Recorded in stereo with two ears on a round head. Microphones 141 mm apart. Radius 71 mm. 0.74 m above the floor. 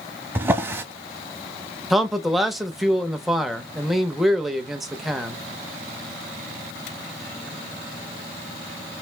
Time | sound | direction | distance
0.3 | a drawer | 15° right (ahead or behind) | 0.8 m
1.9 | a man speaking | centre (ahead or behind) | 0.8 m